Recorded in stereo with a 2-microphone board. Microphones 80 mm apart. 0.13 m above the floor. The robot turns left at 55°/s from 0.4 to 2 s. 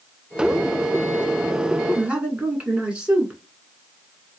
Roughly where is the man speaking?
Centre.